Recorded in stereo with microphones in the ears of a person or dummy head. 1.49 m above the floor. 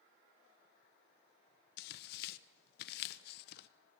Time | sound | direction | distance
1.8 | tearing paper | 65° left (ahead or behind) | 0.9 m